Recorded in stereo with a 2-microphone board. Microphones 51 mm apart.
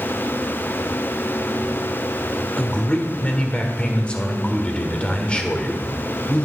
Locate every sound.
2.6 s a man speaking: 20° left (ahead or behind), 1.4 m